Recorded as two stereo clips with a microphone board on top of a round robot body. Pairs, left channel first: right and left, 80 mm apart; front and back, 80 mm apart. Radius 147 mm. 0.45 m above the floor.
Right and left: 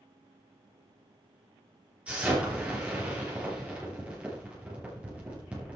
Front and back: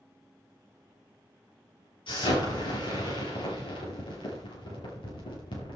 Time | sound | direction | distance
2.1 | an explosion | 15° left | 6 m